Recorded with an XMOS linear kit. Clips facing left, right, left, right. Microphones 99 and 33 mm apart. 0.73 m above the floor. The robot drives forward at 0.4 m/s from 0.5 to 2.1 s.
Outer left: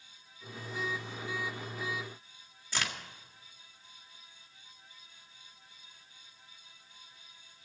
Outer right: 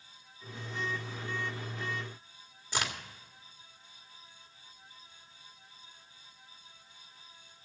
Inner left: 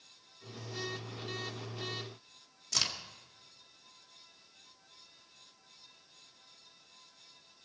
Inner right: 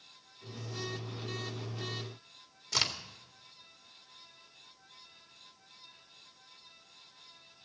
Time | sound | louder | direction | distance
2.7 | a crack | outer right 2 dB, inner right 2 dB | 15° right (ahead or behind) | 1.9 m